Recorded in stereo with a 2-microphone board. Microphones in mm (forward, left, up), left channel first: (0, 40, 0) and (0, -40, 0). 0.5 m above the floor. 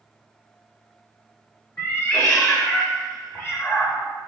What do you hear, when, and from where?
1.8 s a cat meowing: 35° left (ahead or behind), 1.0 m